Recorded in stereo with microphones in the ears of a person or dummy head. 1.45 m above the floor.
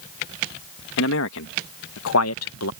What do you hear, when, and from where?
1.0 s a man speaking: 75° left (ahead or behind); by 2.7 s 80° left